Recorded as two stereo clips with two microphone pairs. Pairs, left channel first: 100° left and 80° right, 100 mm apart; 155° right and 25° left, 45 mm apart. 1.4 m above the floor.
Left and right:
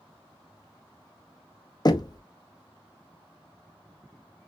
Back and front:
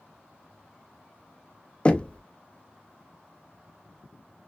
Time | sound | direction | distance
1.9 | knocking | 145° left | 0.6 m